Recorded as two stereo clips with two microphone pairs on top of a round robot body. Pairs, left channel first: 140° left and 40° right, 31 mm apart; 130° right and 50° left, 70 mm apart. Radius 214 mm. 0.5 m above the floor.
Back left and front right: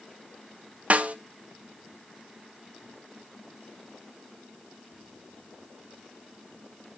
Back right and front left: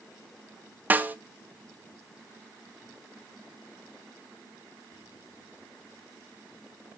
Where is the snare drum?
5° right, 0.6 m.